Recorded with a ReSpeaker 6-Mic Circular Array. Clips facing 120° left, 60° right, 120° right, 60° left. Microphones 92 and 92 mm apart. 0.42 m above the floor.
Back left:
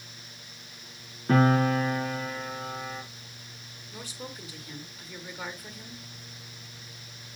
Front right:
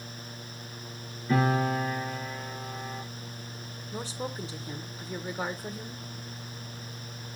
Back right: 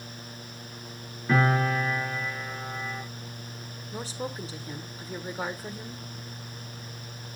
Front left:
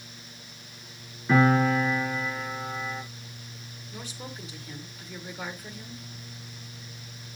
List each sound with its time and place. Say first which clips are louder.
1.3 s a piano: back left 4 dB, front left 3 dB; 150° left, 5 m
3.9 s a woman speaking: front right 6 dB, back right 6 dB; 95° right, 1.4 m